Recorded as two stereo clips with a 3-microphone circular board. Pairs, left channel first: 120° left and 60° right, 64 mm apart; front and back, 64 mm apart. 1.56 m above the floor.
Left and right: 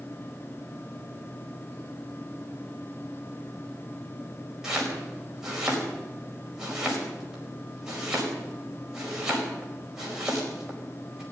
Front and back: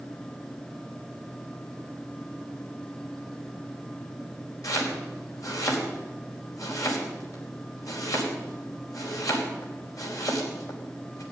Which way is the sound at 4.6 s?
20° left.